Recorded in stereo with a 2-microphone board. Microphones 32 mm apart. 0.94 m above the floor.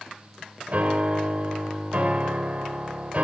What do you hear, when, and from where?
0.7 s a piano: 45° right (ahead or behind), 3 m